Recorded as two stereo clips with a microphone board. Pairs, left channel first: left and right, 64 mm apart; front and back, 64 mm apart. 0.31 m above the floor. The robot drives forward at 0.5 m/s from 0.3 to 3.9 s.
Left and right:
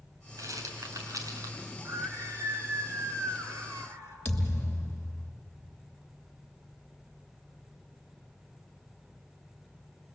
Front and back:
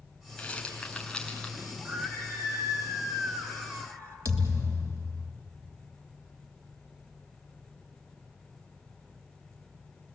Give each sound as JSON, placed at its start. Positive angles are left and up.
{"t": 0.4, "sound": "a rattle", "azimuth_deg": -75, "distance_m": 4.0}
{"t": 1.8, "sound": "a scream", "azimuth_deg": -130, "distance_m": 4.0}
{"t": 4.2, "sound": "a thud", "azimuth_deg": 155, "distance_m": 2.5}